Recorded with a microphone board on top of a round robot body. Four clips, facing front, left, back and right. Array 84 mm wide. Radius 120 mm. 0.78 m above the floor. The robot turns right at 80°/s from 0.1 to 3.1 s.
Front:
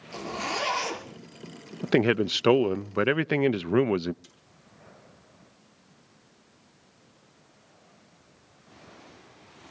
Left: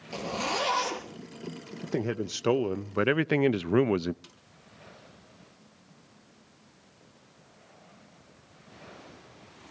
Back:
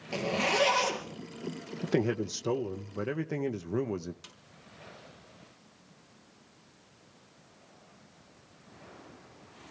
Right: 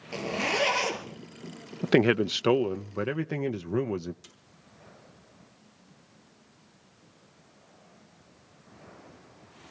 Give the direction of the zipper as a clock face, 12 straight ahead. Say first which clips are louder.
Right 2 dB, back 3 dB; 5 o'clock.